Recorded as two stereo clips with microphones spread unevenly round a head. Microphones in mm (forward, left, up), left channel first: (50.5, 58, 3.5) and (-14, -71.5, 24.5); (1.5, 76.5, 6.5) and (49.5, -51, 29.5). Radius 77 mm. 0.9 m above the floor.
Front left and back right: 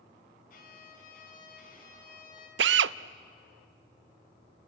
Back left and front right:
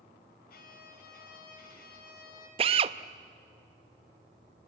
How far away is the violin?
About 4.5 m.